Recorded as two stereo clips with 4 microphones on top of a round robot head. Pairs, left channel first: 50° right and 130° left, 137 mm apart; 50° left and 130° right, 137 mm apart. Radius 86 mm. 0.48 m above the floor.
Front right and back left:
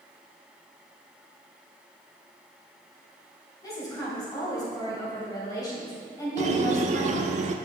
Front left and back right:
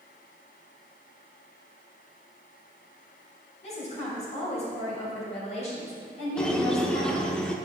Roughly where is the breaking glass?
No breaking glass in this recording.